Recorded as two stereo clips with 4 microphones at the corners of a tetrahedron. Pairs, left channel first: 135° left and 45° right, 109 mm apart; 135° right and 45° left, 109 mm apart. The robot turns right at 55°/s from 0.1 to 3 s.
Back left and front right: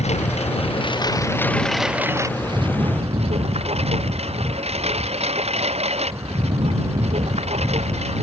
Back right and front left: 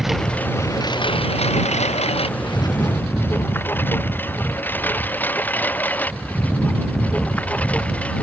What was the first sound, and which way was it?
A lawn mower, 135° left.